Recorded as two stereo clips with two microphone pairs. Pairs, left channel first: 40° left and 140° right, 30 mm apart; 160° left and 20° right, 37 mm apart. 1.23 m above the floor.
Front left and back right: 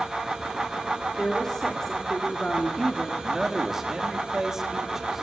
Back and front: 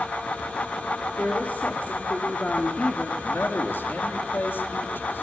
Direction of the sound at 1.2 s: 120° left.